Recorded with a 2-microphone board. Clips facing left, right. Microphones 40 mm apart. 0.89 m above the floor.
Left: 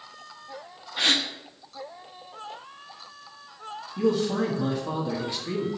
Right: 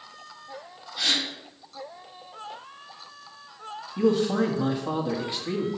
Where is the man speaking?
20° right (ahead or behind), 1.5 m.